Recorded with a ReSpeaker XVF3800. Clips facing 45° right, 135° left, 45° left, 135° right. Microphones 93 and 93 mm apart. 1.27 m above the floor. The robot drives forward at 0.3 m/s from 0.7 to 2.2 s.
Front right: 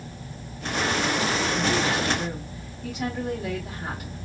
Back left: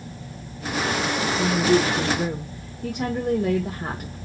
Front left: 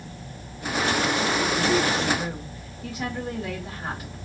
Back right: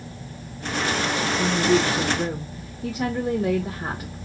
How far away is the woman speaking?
About 0.9 m.